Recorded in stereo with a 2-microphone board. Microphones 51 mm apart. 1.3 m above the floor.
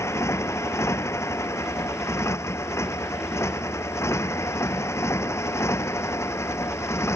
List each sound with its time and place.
0.0 s a motorcycle: 65° left (ahead or behind); by 7.2 s 60° left (ahead or behind)